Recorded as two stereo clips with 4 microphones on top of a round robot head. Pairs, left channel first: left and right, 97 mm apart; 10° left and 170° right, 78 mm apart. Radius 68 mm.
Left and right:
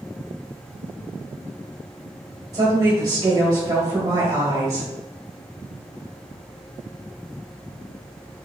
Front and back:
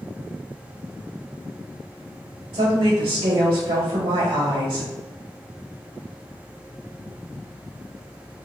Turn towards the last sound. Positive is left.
turn(degrees=-145)